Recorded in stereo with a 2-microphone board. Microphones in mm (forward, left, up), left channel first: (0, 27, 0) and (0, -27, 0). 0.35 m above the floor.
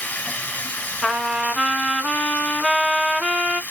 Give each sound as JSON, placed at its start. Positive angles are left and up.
{"t": 0.0, "sound": "running water", "side_deg": 25, "distance_m": 1.6}
{"t": 1.0, "sound": "a trumpet", "side_deg": 0, "distance_m": 1.0}